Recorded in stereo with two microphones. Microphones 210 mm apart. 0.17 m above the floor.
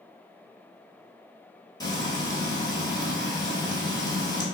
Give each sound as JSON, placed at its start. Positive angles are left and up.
{"t": 1.8, "sound": "frying", "side_deg": 15, "distance_m": 0.8}